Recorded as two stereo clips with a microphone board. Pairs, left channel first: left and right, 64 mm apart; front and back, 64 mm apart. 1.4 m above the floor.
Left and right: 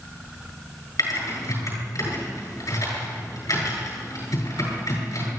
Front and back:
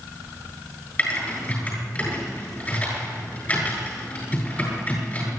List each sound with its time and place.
1.0 s typing on a keyboard: 65° left, 8.5 m